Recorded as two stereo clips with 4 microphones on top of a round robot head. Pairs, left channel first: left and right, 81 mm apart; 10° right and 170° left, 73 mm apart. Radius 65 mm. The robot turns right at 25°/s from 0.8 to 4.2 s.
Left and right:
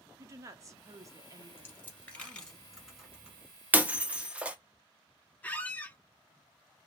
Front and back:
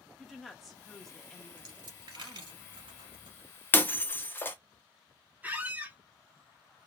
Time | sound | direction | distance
0.2 | a woman speaking | 105° right | 0.8 m
1.6 | a dropped coin | 150° left | 1.1 m
3.7 | breaking glass | 45° right | 0.5 m
5.4 | a squeak | 135° left | 0.6 m